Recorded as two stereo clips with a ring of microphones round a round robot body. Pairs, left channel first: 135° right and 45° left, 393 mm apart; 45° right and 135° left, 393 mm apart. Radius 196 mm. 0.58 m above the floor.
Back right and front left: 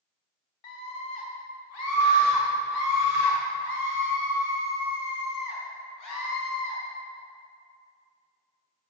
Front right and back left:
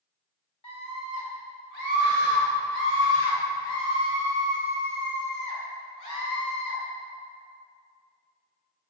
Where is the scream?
120° right, 2.5 m; by 6.8 s 90° right, 5 m.